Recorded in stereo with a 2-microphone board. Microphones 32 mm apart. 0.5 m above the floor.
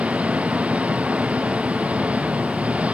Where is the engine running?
45° right (ahead or behind).